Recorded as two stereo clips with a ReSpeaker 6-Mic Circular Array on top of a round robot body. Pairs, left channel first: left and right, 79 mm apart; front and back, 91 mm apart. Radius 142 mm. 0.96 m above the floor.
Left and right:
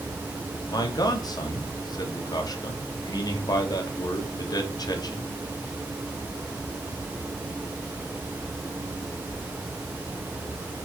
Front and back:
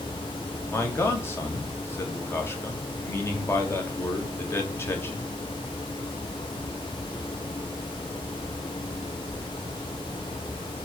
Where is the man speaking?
60° left, 2.0 m.